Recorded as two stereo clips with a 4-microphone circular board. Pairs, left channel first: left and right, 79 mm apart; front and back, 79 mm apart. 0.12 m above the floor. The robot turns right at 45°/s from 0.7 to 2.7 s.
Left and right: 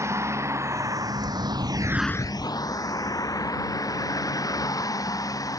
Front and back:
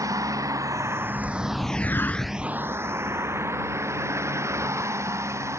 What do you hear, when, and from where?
0.0 s a vehicle: 140° right; by 5.6 s 130° left